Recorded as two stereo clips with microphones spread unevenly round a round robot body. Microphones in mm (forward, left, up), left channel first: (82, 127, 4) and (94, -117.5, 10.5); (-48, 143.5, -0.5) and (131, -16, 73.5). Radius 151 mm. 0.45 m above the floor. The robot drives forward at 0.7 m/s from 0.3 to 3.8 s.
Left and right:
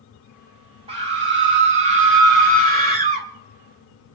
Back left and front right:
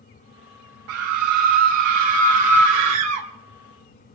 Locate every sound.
0.9 s a scream: 20° right, 3 m; by 3.3 s 50° right, 1.7 m